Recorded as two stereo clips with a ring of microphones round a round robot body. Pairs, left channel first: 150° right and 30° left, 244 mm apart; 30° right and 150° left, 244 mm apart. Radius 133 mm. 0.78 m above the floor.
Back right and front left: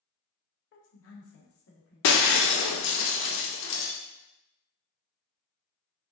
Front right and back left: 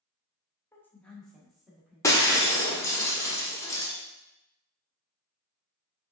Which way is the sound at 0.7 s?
110° right.